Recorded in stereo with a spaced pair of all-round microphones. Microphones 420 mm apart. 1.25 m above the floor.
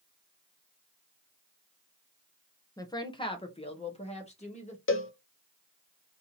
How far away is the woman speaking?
About 0.6 m.